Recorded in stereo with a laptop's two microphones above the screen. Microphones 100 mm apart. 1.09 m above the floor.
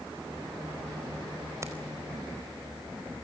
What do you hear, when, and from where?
1.6 s keys jangling: 30° right (ahead or behind), 4 m